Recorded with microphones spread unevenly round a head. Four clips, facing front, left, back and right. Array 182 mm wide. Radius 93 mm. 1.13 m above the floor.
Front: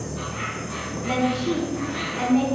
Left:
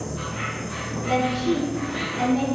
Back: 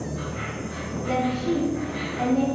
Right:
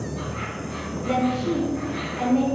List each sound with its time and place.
0.0 s an insect: 15° right, 1.6 m
1.1 s a woman speaking: 45° right, 1.3 m